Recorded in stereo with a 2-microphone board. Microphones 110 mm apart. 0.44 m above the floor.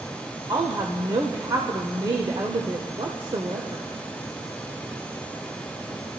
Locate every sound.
0.5 s a woman speaking: 45° right (ahead or behind), 1.1 m